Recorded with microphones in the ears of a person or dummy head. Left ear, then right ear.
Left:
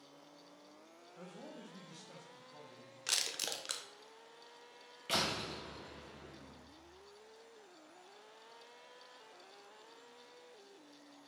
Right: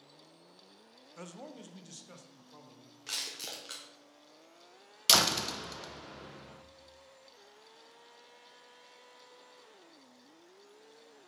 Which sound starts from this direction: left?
Crushing, at 3.1 s.